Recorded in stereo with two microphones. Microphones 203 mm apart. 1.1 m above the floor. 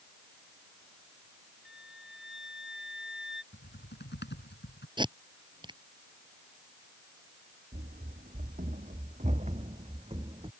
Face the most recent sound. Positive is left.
turn(degrees=-25)  # may be behind; listen again after turning